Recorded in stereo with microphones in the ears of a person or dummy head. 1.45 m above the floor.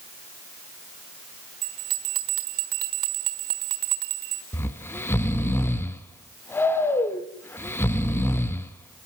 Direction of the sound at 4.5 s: 15° left (ahead or behind).